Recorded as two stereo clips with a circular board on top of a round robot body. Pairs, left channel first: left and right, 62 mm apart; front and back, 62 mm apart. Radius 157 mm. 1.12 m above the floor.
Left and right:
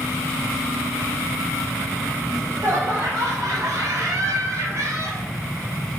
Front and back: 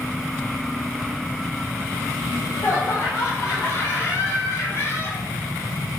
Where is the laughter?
55° right, 3.5 m; by 5.2 s 50° right, 1.8 m.